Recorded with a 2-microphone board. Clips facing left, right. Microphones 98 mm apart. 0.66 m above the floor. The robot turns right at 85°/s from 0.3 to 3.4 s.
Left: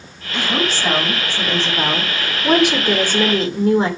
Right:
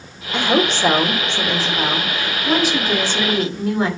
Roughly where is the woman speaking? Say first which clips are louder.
Right 4 dB; behind right.